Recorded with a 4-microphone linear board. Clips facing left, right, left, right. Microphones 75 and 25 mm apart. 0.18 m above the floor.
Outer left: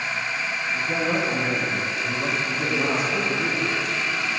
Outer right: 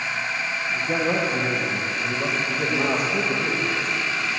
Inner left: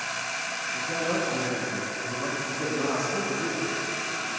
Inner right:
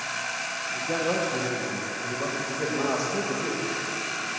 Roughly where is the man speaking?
Right.